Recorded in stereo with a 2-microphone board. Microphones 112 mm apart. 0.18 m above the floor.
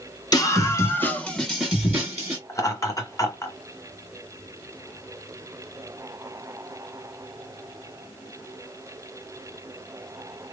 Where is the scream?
35° left (ahead or behind), 1.2 m; by 2.4 s 30° right (ahead or behind), 1.2 m.